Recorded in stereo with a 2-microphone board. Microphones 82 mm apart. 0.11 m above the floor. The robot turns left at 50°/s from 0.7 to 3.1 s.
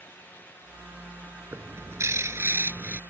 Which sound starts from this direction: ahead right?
A bird, at 1.5 s.